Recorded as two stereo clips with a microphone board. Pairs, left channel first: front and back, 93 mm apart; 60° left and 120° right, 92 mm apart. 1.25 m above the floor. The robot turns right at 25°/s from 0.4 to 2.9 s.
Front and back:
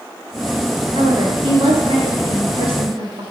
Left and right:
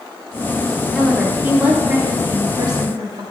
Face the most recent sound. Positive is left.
turn(degrees=-160)